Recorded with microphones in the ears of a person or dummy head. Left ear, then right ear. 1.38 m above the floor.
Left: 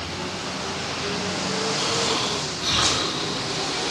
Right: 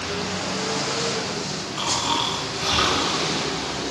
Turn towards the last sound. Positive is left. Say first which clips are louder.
# right 4 dB
turn(degrees=-35)  # may be behind; listen again after turning